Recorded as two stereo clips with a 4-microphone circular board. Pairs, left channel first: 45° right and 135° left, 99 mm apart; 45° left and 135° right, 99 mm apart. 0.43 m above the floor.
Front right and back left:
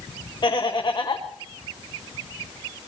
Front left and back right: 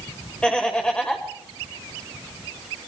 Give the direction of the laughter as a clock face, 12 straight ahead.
1 o'clock.